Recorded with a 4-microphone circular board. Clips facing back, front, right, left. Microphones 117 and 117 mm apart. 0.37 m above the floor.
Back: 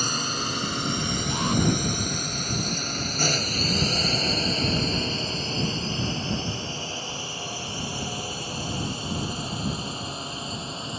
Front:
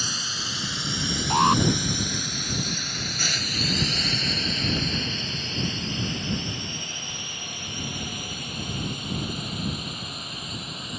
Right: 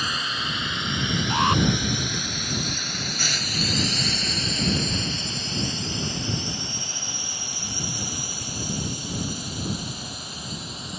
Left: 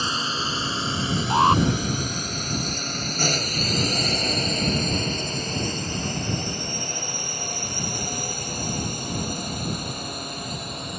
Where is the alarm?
30° left.